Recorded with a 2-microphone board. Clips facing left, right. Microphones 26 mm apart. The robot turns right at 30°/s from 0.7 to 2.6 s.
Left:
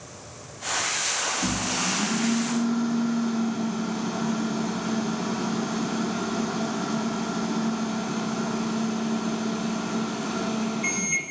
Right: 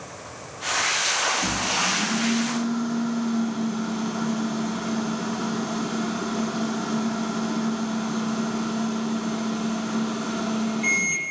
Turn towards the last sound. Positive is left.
turn(degrees=-155)